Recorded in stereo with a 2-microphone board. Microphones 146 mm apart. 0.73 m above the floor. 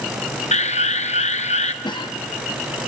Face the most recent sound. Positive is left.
turn(degrees=30)  # may be behind; listen again after turning